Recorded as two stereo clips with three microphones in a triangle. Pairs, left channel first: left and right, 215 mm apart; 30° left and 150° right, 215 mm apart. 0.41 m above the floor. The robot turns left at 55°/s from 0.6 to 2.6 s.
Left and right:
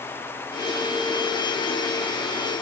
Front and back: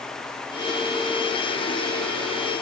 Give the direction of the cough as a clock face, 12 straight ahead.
No cough in this recording.